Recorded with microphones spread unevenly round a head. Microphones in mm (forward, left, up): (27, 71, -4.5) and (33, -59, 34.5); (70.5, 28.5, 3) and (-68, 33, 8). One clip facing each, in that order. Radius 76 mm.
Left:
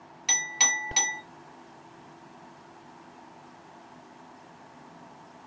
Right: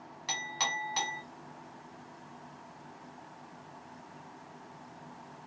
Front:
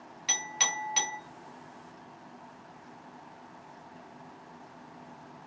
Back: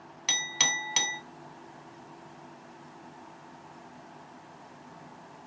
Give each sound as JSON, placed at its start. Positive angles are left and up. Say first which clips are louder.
{"t": 0.3, "sound": "a clink", "louder": "left 1 dB, even", "azimuth_deg": 180, "distance_m": 0.8}